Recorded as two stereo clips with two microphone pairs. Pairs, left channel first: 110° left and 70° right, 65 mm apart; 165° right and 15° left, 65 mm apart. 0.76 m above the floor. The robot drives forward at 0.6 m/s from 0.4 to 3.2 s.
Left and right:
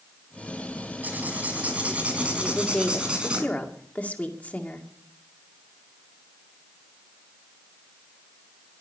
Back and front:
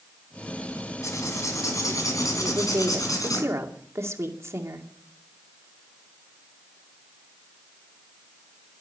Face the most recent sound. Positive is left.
turn(degrees=45)